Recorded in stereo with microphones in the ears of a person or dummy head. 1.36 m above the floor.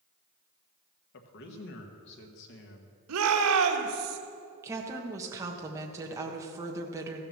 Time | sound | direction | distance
1.1 | a man speaking | 65° left (ahead or behind) | 1.5 m
3.1 | a shout | 80° right | 1.4 m
4.6 | a woman speaking | 15° right (ahead or behind) | 1.3 m